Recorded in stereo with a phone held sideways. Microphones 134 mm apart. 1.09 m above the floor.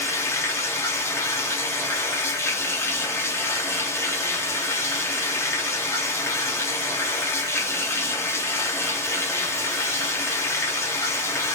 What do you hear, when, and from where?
0.0 s running water: 20° left (ahead or behind), 0.8 m